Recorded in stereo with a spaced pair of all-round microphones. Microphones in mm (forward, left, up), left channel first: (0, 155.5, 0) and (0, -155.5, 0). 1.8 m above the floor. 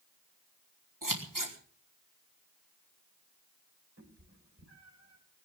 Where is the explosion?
No explosion in this recording.